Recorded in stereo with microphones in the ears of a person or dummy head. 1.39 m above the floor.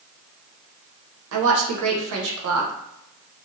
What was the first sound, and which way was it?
A woman speaking, 80° right.